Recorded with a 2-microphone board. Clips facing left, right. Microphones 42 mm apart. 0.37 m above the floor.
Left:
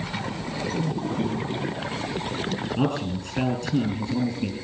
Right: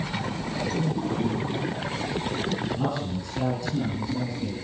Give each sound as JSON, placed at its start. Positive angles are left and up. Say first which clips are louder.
{"t": 1.2, "sound": "laughter", "louder": "left 1 dB", "side_deg": 10, "distance_m": 9.5}
{"t": 2.8, "sound": "a man speaking", "louder": "left 3 dB", "side_deg": 50, "distance_m": 5.0}